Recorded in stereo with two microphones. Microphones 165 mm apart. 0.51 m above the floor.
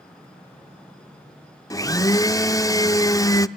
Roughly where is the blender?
Left.